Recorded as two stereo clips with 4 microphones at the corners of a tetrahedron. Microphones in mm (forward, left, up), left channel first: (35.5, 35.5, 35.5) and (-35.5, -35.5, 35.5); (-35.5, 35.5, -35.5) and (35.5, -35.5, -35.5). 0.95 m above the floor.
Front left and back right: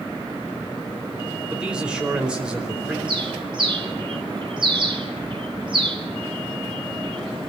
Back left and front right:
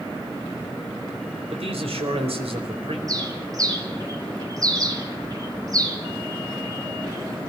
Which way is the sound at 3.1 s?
100° right.